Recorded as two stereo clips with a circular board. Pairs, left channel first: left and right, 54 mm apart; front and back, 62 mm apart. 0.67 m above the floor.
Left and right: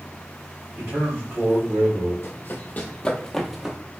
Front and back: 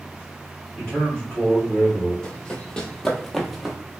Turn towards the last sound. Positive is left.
turn(degrees=-105)